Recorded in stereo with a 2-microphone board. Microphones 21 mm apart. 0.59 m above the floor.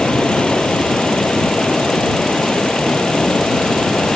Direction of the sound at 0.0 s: 55° left (ahead or behind).